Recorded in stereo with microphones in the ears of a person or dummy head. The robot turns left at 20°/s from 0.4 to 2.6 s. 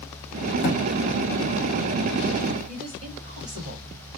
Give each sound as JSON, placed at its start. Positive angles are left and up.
{"t": 0.6, "sound": "a thud", "side_deg": 55, "distance_m": 1.9}
{"t": 2.7, "sound": "a woman speaking", "side_deg": -35, "distance_m": 2.0}